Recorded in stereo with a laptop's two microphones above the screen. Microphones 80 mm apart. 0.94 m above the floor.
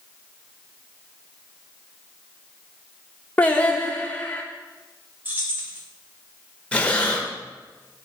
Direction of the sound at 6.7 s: 15° left (ahead or behind).